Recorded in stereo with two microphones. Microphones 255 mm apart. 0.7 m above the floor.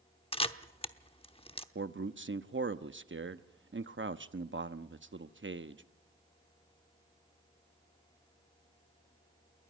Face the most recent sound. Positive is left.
turn(degrees=-50)  # may be behind; listen again after turning